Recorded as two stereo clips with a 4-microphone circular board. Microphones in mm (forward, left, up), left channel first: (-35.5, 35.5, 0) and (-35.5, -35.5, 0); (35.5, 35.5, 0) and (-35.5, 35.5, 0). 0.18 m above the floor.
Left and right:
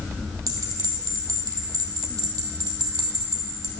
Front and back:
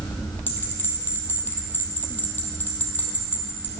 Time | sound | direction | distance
0.5 | a bell | 60° right | 1.1 m